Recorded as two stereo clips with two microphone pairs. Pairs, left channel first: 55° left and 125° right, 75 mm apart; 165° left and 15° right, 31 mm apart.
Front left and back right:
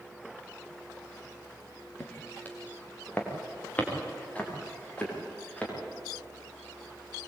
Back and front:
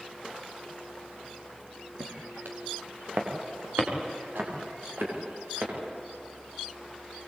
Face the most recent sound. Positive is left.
turn(degrees=-20)